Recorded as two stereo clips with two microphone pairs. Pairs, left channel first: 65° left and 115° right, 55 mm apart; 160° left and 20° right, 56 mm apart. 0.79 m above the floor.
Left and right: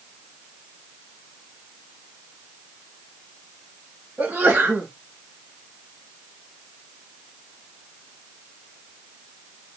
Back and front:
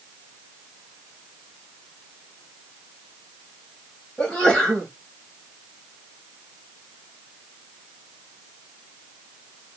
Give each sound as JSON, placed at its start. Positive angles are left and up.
{"t": 4.2, "sound": "a sneeze", "azimuth_deg": -135, "distance_m": 1.0}